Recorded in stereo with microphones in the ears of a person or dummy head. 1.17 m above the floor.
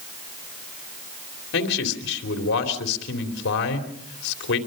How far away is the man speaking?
About 3 m.